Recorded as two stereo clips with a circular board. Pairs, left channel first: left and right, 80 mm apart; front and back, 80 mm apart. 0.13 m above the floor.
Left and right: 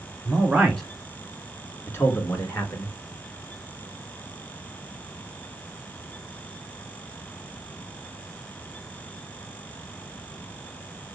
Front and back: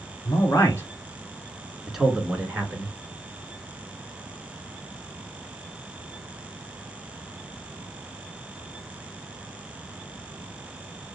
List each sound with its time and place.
0.2 s a man speaking: 10° right, 1.4 m; by 2.9 s 125° left, 1.6 m